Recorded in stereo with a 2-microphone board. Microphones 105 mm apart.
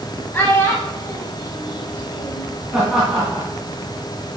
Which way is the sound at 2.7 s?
5° right (ahead or behind).